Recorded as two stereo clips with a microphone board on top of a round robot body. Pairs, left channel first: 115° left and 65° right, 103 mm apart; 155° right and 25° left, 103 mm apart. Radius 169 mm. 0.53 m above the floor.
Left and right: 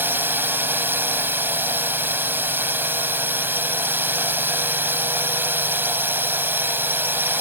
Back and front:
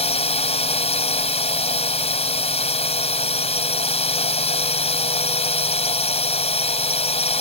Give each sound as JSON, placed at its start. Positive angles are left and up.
{"t": 0.0, "sound": "a drone", "azimuth_deg": -140}